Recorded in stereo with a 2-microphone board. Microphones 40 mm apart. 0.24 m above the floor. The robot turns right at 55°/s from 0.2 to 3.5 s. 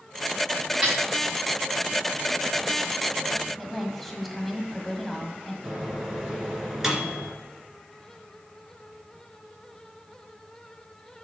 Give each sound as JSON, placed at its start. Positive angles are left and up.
{"t": 0.8, "sound": "a snare drum", "side_deg": -15, "distance_m": 4.0}
{"t": 3.6, "sound": "a woman speaking", "side_deg": 5, "distance_m": 1.3}
{"t": 5.6, "sound": "a microwave", "side_deg": -10, "distance_m": 2.5}